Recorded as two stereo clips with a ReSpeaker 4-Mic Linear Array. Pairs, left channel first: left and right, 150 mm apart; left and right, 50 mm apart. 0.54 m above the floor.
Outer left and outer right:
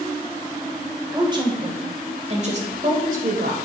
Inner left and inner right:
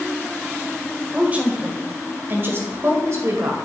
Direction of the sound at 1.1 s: 25° right (ahead or behind).